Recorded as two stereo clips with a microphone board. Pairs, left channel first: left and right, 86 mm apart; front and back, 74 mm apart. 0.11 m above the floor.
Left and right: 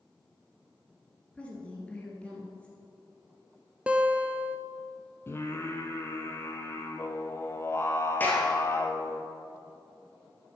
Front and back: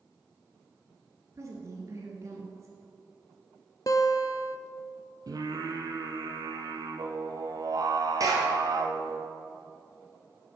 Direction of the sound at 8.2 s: 155° left.